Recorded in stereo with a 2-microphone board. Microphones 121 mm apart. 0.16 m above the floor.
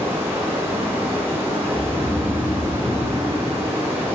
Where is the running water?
20° right (ahead or behind), 7 m.